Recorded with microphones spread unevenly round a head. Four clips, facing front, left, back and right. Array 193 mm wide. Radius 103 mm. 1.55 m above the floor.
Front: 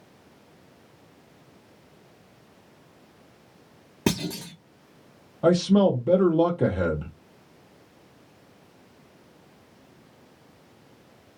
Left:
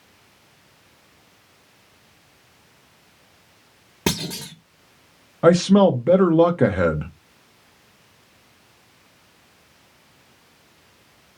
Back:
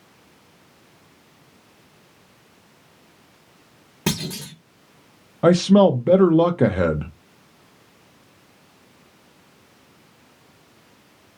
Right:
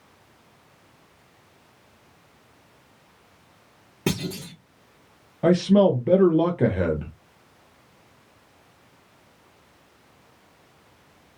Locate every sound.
4.1 s a clunk: 65° left, 1.1 m
5.4 s a man speaking: 150° left, 0.5 m